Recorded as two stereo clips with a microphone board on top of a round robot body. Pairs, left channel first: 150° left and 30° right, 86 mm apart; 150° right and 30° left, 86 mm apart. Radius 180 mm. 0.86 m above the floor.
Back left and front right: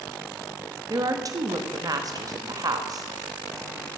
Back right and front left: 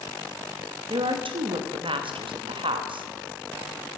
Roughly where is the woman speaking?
Ahead.